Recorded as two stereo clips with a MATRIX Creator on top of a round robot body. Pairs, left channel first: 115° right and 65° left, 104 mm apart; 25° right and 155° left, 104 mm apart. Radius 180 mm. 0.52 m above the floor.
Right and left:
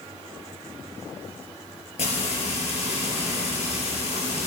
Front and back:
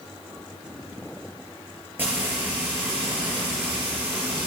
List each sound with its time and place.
2.0 s frying: 130° right, 3.5 m